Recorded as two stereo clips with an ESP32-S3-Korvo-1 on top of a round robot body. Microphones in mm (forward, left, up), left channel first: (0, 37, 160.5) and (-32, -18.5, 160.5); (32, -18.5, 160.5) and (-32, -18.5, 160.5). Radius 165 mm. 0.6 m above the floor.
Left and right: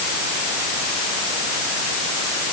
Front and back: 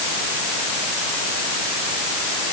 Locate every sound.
Only background noise.